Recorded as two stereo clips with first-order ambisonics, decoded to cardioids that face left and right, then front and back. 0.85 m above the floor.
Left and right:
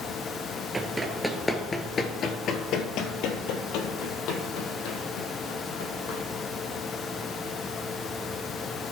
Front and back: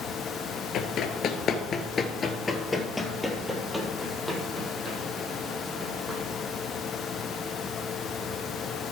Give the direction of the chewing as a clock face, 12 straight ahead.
I don't hear chewing.